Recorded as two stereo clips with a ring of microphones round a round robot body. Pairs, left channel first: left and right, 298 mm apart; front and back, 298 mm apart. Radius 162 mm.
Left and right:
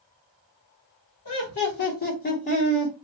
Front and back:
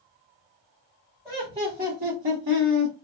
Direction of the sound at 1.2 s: 105° left.